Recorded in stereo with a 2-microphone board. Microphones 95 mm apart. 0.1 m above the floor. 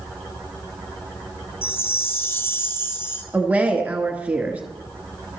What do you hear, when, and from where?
1.6 s a chime: 25° left (ahead or behind), 0.9 m
3.3 s a woman speaking: 15° right (ahead or behind), 1.2 m